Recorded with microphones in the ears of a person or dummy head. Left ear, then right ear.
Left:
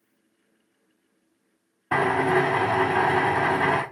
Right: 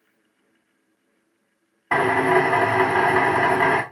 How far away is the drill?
About 1.5 m.